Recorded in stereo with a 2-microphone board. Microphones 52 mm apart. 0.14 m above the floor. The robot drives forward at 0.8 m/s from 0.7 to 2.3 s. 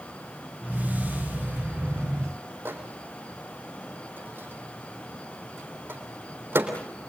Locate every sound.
2.6 s a microwave: 45° right (ahead or behind), 4 m